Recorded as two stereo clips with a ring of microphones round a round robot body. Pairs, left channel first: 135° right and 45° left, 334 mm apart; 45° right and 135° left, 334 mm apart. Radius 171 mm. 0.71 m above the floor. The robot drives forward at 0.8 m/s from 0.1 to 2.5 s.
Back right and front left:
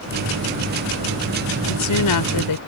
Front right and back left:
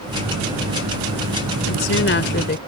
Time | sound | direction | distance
1.7 | a woman speaking | 95° right | ?